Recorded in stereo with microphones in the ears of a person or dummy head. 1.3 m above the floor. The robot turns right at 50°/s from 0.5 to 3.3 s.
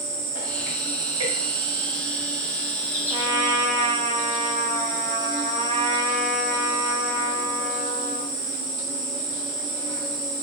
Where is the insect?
120° right, 2 m; by 10.4 s 20° left, 2 m.